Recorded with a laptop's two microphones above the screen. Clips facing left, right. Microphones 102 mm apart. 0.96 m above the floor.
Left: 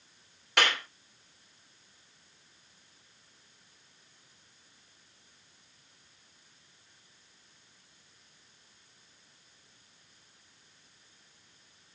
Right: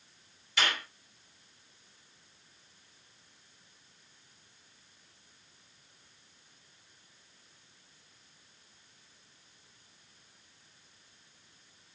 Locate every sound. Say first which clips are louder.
0.6 s a clap: left 4 dB; 70° left (ahead or behind), 3.5 m